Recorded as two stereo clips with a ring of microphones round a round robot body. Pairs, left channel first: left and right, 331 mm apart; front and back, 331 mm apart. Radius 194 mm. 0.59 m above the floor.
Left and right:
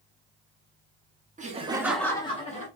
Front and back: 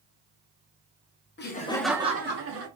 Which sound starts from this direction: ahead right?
Laughter, at 1.4 s.